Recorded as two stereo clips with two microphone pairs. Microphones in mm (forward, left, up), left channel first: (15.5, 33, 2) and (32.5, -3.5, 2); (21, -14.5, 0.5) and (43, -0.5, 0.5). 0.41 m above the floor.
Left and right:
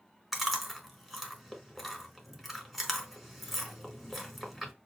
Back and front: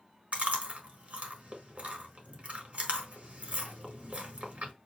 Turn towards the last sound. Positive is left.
turn(degrees=20)